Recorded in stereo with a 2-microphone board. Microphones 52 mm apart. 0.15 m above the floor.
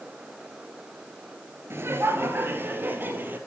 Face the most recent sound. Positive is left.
turn(degrees=-40)  # may be behind; listen again after turning